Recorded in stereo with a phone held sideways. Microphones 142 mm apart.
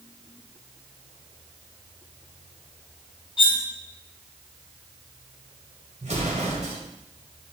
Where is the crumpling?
I don't hear crumpling.